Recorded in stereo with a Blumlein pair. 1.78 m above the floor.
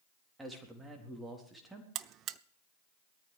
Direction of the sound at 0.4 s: 10° right.